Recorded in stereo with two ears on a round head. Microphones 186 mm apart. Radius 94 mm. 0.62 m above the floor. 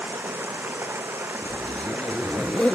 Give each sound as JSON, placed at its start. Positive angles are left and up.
{"t": 0.0, "sound": "running water", "side_deg": -10}
{"t": 1.4, "sound": "a zipper", "side_deg": 5}